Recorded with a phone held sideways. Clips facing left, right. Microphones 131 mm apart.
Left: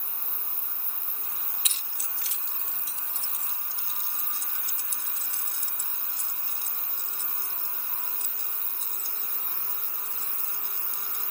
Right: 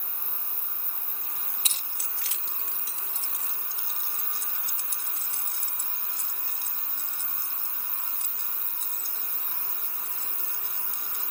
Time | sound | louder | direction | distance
1.6 | keys jangling | right 1 dB | 35° right (ahead or behind) | ?